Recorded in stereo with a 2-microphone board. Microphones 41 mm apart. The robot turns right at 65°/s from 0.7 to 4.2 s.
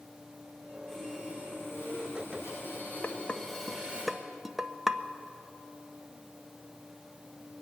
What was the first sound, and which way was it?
Sawing, straight ahead.